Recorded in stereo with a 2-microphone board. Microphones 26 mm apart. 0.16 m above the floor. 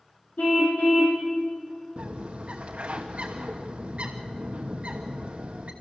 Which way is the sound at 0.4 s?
80° left.